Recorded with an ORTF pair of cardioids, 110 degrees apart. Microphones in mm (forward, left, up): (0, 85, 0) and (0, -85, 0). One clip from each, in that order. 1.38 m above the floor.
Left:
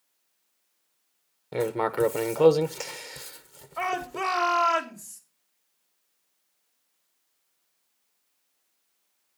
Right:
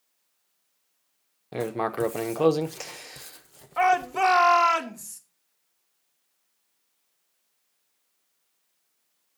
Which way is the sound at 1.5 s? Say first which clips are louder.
Left 2 dB; 5° left.